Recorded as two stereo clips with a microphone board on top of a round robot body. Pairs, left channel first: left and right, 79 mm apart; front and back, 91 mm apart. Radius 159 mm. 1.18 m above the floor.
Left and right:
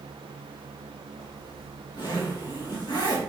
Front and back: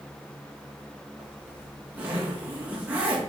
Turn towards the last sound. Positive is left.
turn(degrees=110)